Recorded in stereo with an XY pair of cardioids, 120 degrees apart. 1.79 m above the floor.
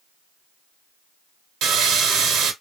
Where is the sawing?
70° right, 1.2 m.